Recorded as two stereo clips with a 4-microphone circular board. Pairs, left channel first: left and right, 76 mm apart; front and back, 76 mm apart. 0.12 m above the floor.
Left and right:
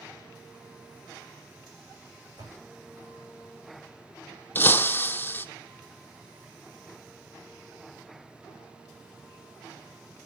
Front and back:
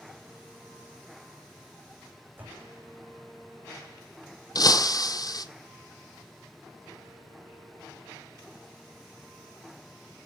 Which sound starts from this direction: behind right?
A door slam, at 2.4 s.